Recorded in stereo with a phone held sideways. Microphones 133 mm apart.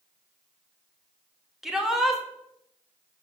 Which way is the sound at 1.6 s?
Centre (ahead or behind).